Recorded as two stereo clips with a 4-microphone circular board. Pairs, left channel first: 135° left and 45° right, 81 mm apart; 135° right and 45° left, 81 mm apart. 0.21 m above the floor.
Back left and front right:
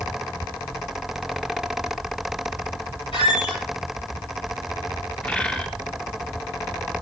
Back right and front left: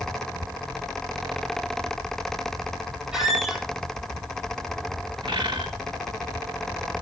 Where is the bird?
60° left, 1.4 m.